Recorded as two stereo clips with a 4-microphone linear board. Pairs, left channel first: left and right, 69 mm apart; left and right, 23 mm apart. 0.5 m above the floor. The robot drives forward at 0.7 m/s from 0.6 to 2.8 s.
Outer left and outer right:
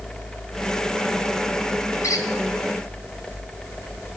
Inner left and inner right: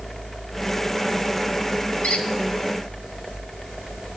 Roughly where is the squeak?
Left.